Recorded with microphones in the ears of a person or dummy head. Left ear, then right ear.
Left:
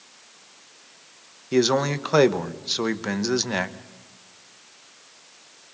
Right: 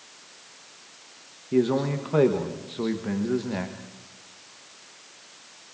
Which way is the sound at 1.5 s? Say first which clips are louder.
Left 3 dB; 70° left (ahead or behind).